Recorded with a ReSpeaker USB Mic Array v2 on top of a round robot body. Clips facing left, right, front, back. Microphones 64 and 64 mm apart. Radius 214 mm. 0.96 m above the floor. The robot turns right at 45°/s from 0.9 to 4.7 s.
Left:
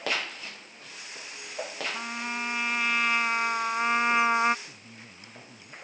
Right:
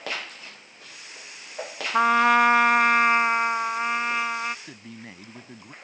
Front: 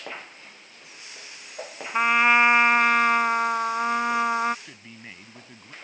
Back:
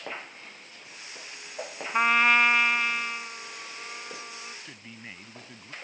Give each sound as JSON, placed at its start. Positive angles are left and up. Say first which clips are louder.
{"t": 1.9, "sound": "a trumpet", "louder": "right 21 dB, front 3 dB", "azimuth_deg": -90}
{"t": 4.7, "sound": "a man speaking", "louder": "right 6 dB, even", "azimuth_deg": -90}